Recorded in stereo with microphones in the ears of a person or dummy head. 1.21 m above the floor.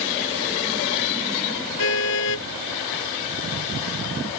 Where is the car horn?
65° left (ahead or behind).